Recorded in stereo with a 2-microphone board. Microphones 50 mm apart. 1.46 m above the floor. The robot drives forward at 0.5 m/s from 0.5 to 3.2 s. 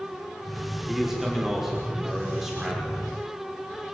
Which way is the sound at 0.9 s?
5° right (ahead or behind).